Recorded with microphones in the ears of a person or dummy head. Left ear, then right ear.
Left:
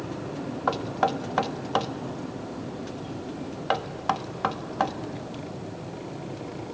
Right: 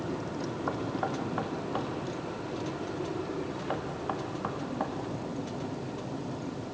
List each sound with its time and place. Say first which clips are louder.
0.7 s knocking: left 9 dB; 75° left (ahead or behind), 1.4 m